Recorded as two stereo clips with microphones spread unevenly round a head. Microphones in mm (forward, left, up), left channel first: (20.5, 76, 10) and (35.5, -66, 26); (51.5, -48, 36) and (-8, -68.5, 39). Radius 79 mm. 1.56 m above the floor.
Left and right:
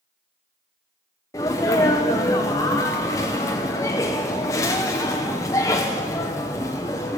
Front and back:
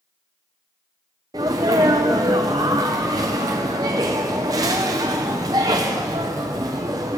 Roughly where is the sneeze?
Behind.